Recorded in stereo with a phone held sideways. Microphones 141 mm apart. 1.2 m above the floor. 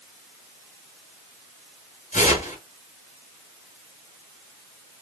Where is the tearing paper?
60° left (ahead or behind), 1.8 m.